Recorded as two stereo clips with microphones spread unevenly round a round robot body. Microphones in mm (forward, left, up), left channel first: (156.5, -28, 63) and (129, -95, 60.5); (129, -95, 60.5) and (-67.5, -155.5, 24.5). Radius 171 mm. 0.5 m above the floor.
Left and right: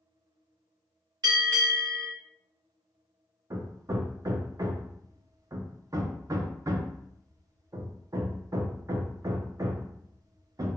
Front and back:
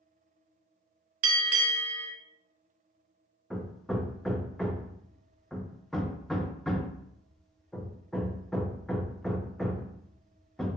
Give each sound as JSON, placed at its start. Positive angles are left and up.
{"t": 1.2, "sound": "a bell", "azimuth_deg": -155, "distance_m": 0.6}
{"t": 3.5, "sound": "hammering", "azimuth_deg": -75, "distance_m": 0.5}